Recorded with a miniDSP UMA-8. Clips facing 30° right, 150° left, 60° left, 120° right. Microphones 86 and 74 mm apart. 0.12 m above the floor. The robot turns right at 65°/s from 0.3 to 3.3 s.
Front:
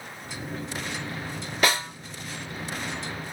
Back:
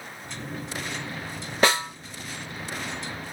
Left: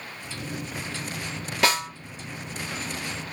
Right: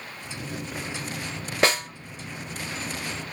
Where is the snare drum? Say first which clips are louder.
Back 3 dB, right 1 dB; 165° right, 1.3 m; by 1.9 s 150° right, 1.3 m.